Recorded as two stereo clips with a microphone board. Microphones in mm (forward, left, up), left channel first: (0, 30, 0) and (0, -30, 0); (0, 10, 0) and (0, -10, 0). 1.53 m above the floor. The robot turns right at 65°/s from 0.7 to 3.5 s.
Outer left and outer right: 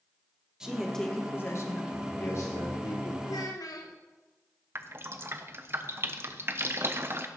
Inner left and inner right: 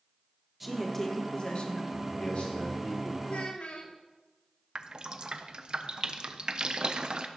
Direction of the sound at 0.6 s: 10° right.